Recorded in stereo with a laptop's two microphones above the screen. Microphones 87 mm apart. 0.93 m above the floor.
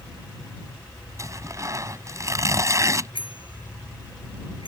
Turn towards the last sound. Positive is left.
turn(degrees=80)